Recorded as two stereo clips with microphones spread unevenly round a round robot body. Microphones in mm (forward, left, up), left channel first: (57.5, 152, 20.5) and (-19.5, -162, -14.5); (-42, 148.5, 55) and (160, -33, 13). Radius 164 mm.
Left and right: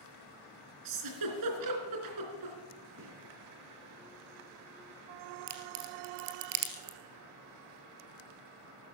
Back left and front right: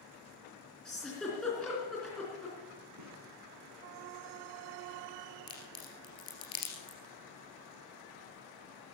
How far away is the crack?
About 2 m.